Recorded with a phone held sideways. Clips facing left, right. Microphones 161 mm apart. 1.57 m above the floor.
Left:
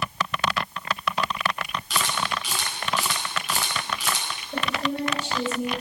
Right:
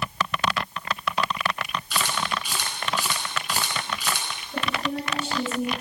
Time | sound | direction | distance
1.9 | a camera shutter | 85° left | 9.5 m
4.5 | a woman speaking | 90° left | 9 m